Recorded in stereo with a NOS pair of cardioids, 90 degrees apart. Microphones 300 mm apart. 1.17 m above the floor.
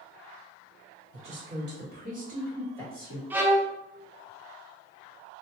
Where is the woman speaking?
40° right, 1.8 m; by 3.2 s 15° right, 2 m.